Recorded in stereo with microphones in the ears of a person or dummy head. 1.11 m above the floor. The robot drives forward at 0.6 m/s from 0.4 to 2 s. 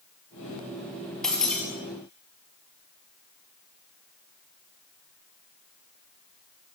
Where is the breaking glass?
10° left (ahead or behind), 4.5 m.